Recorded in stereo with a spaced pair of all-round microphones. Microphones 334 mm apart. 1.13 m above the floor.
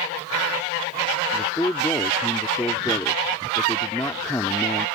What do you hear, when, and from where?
1.3 s a man speaking: 10° left (ahead or behind)